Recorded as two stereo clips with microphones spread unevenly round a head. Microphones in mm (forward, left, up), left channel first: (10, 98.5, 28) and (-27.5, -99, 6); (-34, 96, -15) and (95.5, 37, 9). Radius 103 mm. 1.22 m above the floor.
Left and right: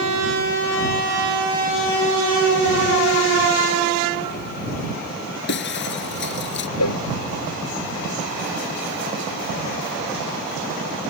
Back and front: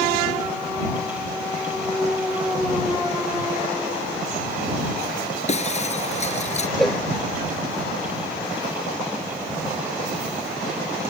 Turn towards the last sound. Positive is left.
turn(degrees=65)